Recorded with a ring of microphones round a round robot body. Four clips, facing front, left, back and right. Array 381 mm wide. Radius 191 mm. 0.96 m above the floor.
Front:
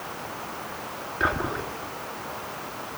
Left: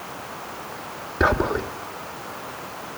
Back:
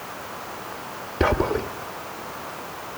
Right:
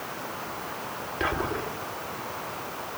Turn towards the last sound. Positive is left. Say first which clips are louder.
# left 8 dB, back 6 dB
turn(degrees=140)